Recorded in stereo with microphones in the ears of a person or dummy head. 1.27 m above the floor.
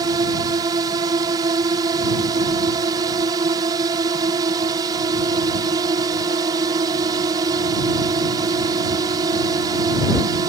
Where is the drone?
25° right (ahead or behind).